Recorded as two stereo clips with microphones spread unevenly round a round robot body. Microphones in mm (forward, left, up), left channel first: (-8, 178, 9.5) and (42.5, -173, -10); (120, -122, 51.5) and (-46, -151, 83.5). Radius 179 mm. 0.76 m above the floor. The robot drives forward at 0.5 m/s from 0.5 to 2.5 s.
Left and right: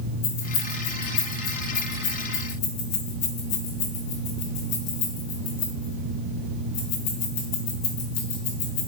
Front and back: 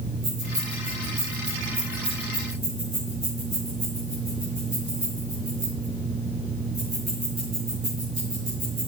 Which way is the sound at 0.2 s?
140° left.